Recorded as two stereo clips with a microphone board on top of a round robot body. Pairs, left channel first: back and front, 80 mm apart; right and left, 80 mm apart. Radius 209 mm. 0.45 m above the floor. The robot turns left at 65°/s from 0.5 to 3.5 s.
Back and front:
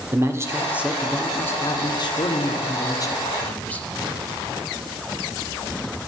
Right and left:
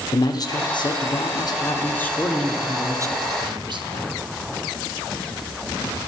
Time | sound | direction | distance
0.1 | a man speaking | 55° right | 1.8 m